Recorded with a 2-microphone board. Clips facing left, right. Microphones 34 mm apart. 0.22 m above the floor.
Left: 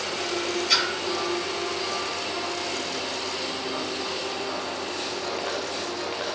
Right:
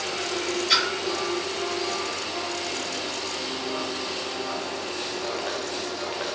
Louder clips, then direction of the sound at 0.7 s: Right 1 dB; 15° right (ahead or behind).